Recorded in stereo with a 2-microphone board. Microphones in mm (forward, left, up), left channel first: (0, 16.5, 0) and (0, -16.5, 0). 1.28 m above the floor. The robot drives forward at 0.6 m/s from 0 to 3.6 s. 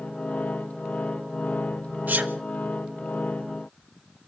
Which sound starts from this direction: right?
A sneeze, at 2.1 s.